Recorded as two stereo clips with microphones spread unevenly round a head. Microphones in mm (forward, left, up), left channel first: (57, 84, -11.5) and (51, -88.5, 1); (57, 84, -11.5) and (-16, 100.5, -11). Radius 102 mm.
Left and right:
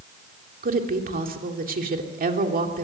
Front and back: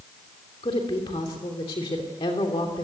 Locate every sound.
0.6 s a woman speaking: 55° right, 3 m